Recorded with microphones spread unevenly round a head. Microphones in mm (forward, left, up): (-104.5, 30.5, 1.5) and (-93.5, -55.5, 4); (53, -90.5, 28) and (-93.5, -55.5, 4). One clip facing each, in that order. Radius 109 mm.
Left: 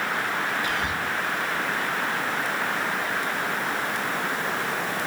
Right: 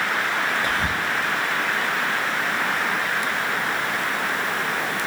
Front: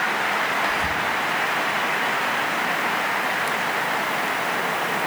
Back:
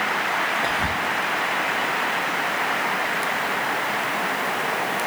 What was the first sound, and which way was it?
Whispering, 130° right.